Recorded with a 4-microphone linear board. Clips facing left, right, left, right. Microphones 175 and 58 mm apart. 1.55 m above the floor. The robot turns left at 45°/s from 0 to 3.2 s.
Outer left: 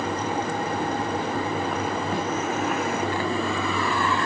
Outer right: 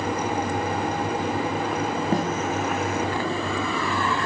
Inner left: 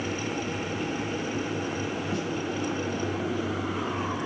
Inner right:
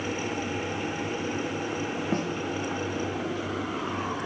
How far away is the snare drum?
About 1.2 m.